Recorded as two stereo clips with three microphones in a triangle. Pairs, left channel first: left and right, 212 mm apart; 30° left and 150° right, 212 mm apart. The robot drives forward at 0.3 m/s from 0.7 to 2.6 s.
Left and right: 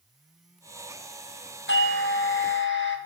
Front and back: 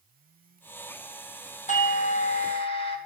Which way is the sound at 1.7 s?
80° left.